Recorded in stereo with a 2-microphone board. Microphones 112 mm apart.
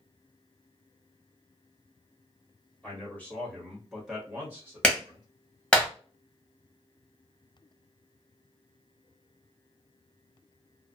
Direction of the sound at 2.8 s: 15° left (ahead or behind).